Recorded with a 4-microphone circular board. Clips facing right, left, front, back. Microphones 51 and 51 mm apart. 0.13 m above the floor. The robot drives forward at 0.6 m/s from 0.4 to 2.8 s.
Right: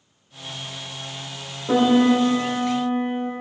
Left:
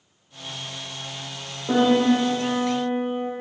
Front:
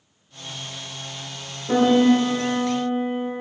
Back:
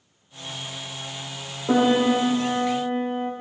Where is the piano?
175° left, 3 m.